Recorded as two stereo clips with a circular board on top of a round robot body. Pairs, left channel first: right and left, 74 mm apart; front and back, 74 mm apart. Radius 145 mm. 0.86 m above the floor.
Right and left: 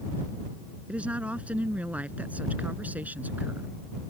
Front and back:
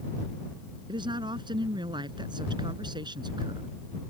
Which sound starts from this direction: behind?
A woman speaking, at 0.9 s.